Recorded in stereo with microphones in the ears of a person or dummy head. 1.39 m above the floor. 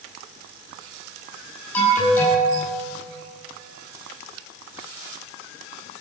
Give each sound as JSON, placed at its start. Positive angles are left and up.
{"t": 1.7, "sound": "an alarm", "side_deg": 15, "distance_m": 6.0}